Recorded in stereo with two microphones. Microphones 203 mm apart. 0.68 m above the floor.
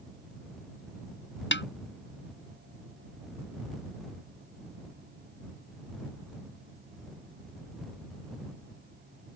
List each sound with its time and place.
1.5 s a snare drum: 65° left (ahead or behind)